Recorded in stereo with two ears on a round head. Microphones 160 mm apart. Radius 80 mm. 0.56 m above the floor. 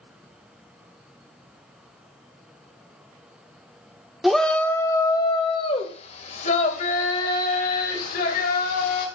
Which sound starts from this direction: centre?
A shout, at 4.2 s.